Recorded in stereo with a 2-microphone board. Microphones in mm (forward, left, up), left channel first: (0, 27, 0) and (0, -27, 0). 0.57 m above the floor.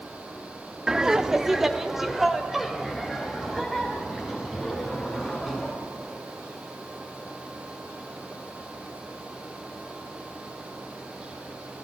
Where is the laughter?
10° right (ahead or behind), 0.7 m; by 5.7 s centre (ahead or behind), 5.5 m.